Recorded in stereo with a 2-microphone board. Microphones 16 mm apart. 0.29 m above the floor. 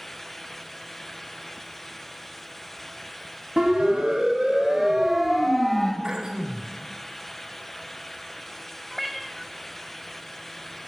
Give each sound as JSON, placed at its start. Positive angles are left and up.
{"t": 3.6, "sound": "a siren", "side_deg": -50, "distance_m": 2.5}
{"t": 6.0, "sound": "throat clearing", "side_deg": -45, "distance_m": 1.2}
{"t": 8.9, "sound": "a cat meowing", "side_deg": 5, "distance_m": 0.8}